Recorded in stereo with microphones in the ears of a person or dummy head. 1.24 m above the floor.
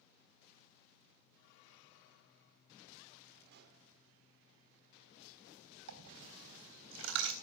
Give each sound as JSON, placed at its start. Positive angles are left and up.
{"t": 3.5, "sound": "a pop", "side_deg": -60, "distance_m": 2.0}
{"t": 5.9, "sound": "a dropped coin", "side_deg": -70, "distance_m": 3.5}